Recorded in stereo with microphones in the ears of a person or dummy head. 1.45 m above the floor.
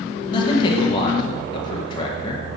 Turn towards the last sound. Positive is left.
turn(degrees=25)  # may be behind; listen again after turning